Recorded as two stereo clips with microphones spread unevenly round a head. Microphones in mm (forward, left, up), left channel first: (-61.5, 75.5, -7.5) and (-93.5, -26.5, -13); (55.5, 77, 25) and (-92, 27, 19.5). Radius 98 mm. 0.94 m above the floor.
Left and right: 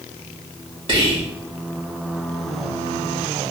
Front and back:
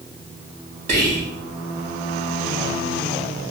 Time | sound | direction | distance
0.9 | whispering | 130° right | 1.3 m